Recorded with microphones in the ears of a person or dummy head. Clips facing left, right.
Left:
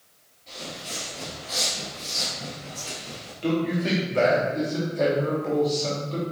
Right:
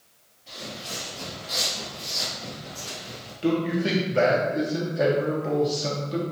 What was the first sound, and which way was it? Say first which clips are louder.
Footsteps: even; centre (ahead or behind).